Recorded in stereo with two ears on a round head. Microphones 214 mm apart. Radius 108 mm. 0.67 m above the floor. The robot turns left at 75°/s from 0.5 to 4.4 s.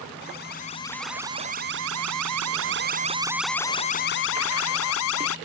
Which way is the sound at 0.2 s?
40° left.